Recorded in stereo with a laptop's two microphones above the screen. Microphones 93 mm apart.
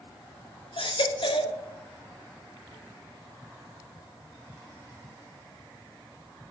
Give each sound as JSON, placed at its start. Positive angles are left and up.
{"t": 0.8, "sound": "a baby crying", "side_deg": 65, "distance_m": 1.1}